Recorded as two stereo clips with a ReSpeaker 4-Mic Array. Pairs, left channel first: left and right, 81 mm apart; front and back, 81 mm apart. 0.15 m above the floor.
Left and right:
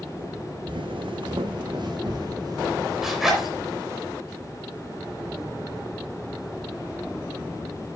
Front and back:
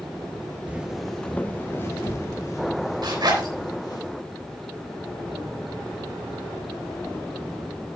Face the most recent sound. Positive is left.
turn(degrees=-175)